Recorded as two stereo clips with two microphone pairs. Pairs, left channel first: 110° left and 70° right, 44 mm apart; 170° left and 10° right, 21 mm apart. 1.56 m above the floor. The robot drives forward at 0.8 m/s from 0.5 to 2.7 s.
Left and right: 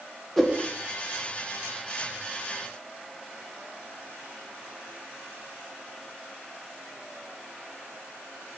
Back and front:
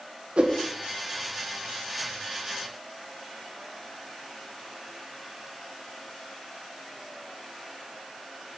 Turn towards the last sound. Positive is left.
turn(degrees=120)